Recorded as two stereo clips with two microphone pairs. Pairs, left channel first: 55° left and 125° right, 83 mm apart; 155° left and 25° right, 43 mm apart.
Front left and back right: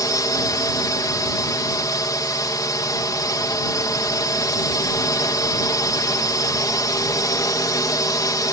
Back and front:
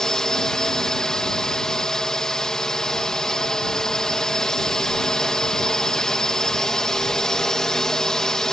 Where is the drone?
85° left.